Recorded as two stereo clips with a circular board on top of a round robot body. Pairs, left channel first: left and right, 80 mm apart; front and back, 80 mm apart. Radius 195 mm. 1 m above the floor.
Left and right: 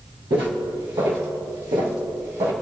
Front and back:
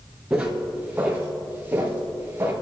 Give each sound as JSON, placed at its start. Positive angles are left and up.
{"t": 0.3, "sound": "footsteps", "azimuth_deg": -105, "distance_m": 2.5}